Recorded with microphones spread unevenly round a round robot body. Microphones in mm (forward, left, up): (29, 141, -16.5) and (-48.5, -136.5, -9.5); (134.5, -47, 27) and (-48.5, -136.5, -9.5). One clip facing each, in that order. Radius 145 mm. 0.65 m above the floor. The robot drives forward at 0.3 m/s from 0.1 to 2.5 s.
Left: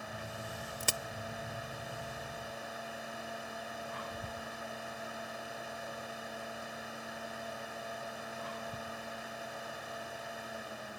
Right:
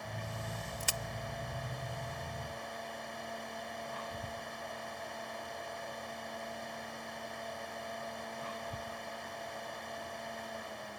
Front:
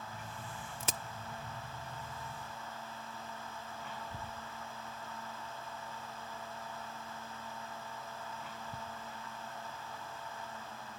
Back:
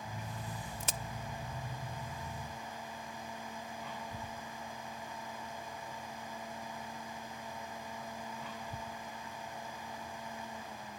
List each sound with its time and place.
0.8 s a crack: 30° left